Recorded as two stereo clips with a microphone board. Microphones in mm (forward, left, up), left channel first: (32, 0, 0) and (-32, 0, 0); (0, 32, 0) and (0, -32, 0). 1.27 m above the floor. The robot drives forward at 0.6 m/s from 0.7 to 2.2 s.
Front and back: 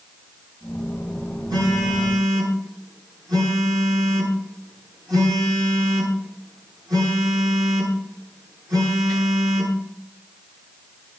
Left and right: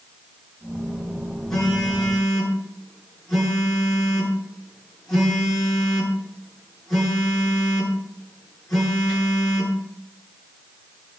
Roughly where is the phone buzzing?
Behind.